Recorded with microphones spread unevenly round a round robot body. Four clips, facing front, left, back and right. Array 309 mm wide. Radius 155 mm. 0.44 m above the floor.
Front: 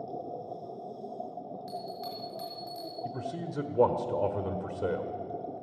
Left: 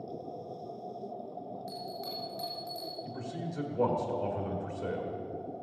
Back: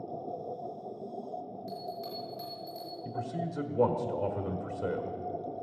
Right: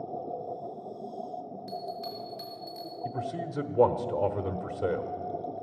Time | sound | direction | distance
1.7 | a bell | 20° right | 5.5 m
3.0 | a man speaking | 40° right | 1.4 m